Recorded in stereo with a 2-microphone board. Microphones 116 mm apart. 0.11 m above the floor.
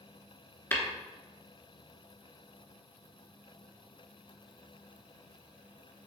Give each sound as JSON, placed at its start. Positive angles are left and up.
{"t": 0.7, "sound": "tapping", "side_deg": 20, "distance_m": 1.0}